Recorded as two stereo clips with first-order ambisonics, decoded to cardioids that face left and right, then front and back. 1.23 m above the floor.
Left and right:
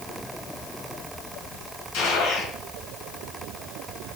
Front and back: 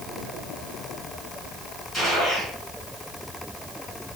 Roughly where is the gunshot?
Left.